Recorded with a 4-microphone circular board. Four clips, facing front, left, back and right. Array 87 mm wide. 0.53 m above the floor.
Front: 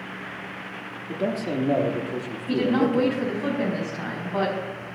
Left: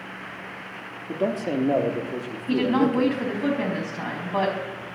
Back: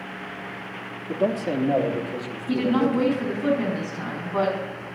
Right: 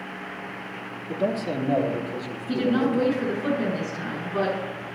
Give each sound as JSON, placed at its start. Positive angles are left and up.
{"t": 1.1, "sound": "a man speaking", "azimuth_deg": 135, "distance_m": 1.1}
{"t": 2.5, "sound": "a woman speaking", "azimuth_deg": 75, "distance_m": 4.5}